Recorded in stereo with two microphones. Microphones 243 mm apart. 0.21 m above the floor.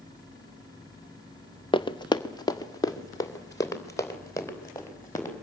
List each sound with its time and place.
1.7 s running footsteps: 20° left (ahead or behind), 0.9 m; by 5.3 s 10° left (ahead or behind), 5 m